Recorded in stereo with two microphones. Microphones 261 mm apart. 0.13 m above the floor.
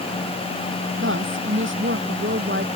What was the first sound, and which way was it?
A woman speaking, 50° right (ahead or behind).